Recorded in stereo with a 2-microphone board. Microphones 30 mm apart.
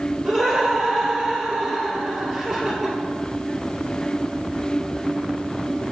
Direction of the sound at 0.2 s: Centre (ahead or behind).